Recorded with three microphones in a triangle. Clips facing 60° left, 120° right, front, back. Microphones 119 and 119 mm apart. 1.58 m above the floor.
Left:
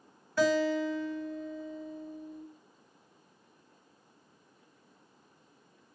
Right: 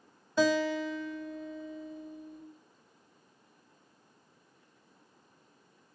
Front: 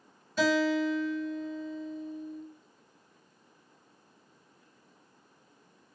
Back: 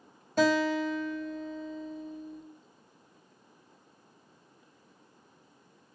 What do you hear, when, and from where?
0.4 s a guitar: straight behind, 1.6 m